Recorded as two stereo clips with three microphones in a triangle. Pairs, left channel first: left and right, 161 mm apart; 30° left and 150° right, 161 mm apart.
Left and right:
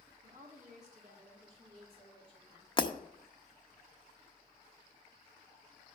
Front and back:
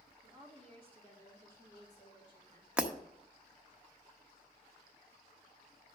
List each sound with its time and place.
0.2 s a woman speaking: 55° right, 1.7 m; by 2.7 s 30° right, 3 m
2.8 s breaking glass: 130° left, 0.9 m